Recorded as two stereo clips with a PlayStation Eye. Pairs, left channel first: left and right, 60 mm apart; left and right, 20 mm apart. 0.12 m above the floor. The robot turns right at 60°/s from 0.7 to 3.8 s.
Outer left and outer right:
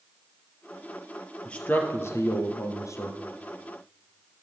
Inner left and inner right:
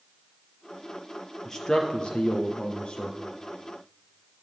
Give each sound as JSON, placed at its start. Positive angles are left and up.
{"t": 1.4, "sound": "a man speaking", "azimuth_deg": 20, "distance_m": 2.5}